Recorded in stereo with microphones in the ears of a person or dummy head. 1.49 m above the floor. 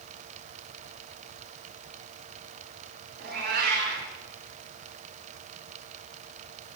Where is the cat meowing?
45° right (ahead or behind), 2.5 m.